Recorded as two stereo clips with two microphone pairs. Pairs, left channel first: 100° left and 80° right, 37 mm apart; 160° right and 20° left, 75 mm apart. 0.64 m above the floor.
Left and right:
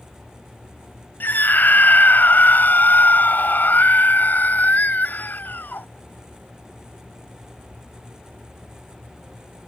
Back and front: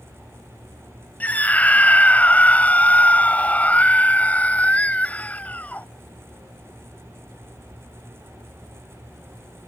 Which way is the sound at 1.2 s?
130° left.